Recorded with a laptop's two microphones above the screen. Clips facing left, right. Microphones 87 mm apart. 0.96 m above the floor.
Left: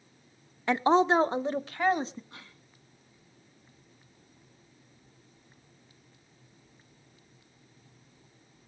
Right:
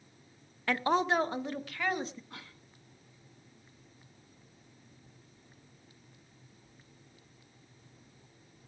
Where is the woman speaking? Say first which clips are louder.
Left 6 dB; 20° left (ahead or behind), 0.6 m; by 2.2 s 30° left (ahead or behind), 1.6 m.